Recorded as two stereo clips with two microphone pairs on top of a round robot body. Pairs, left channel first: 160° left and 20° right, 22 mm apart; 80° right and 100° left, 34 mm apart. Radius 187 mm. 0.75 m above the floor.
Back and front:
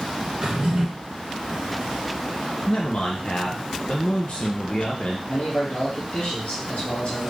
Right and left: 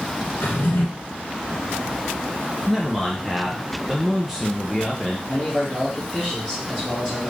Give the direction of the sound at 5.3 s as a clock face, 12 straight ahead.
6 o'clock.